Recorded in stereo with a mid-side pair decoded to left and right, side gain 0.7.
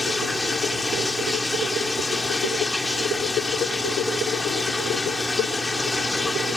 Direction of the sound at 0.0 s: 15° left.